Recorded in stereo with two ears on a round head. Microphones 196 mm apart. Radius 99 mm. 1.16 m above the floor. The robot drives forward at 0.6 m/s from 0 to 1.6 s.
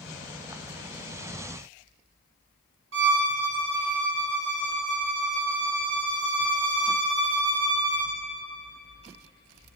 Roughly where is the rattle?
I don't hear a rattle.